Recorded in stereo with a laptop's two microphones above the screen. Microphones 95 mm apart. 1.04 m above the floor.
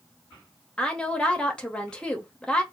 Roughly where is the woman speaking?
Centre.